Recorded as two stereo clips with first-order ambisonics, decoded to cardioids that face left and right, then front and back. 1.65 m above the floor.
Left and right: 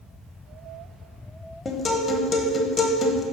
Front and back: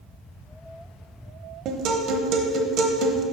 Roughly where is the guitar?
Behind.